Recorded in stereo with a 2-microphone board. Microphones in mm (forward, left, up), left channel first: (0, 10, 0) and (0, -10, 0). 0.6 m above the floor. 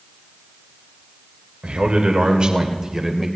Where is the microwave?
I don't hear a microwave.